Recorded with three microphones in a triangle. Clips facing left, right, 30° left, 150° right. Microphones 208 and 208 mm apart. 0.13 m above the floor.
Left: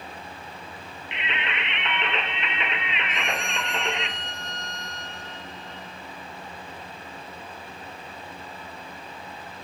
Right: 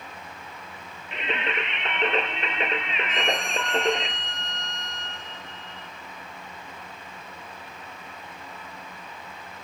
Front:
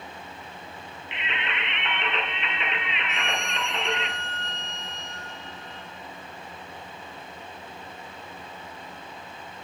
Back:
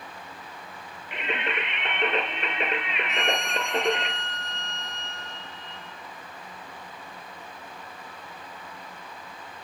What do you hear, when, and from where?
1.1 s singing: 125° right, 1.7 m
3.1 s a violin: 165° left, 3.5 m